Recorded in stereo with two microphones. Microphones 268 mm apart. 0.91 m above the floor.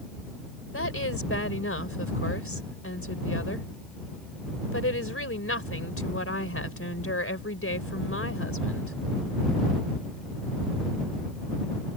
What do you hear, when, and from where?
0.7 s a woman speaking: 55° left (ahead or behind)